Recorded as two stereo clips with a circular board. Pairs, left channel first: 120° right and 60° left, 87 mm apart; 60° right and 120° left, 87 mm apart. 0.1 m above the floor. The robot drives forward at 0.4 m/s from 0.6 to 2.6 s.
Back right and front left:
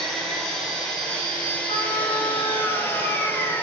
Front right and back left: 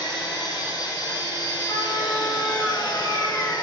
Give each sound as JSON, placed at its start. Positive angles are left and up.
{"t": 0.0, "sound": "an engine running", "azimuth_deg": -35, "distance_m": 2.0}
{"t": 1.7, "sound": "a trumpet", "azimuth_deg": -110, "distance_m": 2.5}